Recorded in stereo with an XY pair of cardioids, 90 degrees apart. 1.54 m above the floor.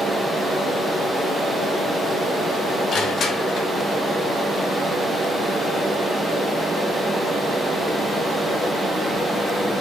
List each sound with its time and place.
2.9 s crushing: 65° left, 1.0 m